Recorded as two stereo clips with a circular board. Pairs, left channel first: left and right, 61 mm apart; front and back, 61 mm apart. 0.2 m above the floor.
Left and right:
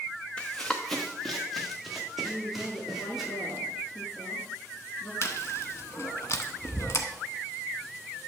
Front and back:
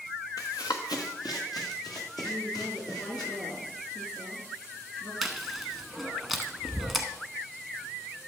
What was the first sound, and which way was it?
Running footsteps, 20° left.